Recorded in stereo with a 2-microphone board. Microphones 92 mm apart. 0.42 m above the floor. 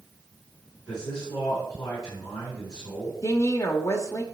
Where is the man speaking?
45° left (ahead or behind), 4 m.